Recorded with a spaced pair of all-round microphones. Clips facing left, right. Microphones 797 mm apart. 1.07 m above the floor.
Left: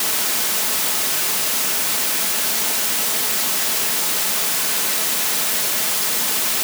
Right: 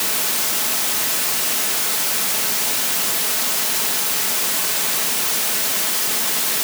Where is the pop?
No pop in this recording.